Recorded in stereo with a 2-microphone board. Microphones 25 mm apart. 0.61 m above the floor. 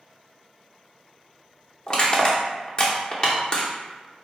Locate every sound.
1.9 s crushing: 30° left (ahead or behind), 0.7 m